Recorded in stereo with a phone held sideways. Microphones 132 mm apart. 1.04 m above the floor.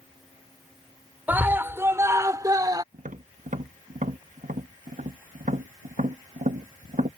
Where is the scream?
15° right (ahead or behind); by 2.8 s 30° right (ahead or behind).